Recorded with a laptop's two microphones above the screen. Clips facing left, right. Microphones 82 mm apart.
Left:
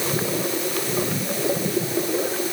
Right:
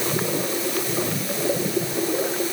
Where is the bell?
I don't hear a bell.